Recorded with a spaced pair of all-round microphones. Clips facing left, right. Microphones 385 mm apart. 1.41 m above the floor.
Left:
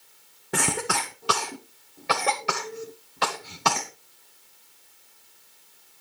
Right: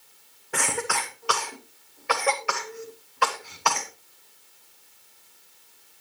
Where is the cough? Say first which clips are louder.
Left 2 dB; 50° left (ahead or behind), 0.8 m.